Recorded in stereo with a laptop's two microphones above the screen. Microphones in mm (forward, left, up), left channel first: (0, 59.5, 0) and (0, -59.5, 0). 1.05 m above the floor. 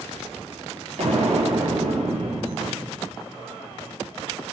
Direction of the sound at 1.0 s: 75° right (ahead or behind).